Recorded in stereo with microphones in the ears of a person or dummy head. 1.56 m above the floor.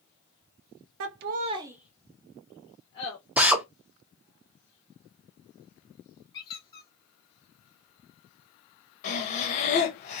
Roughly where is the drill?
Centre.